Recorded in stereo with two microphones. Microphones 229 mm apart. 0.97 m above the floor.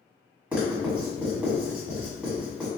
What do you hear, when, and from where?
0.5 s writing: 5° right (ahead or behind), 1.6 m